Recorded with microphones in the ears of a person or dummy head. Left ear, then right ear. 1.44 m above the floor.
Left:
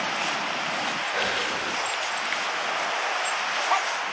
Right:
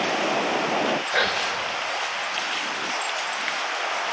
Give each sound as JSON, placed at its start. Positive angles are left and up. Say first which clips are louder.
{"t": 1.1, "sound": "whispering", "louder": "right 3 dB", "side_deg": -40, "distance_m": 1.3}